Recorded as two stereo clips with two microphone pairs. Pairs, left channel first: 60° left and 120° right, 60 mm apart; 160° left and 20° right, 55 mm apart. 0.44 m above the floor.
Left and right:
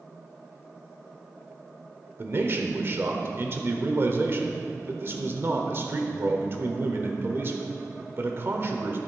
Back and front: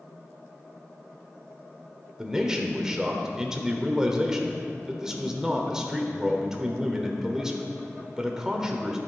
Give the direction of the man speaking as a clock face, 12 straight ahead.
3 o'clock.